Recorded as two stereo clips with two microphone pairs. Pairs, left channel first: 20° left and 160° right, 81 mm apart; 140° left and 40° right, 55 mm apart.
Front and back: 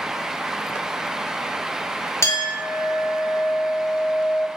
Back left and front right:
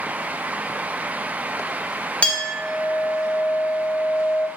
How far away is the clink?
About 0.5 m.